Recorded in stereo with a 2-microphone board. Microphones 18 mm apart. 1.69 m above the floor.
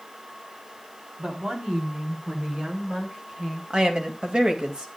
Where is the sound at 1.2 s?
80° right, 3.5 m; by 3.6 s 85° right, 6.5 m.